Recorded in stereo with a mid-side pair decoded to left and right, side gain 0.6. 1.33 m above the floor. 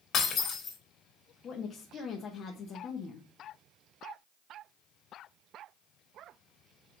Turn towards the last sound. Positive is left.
turn(degrees=45)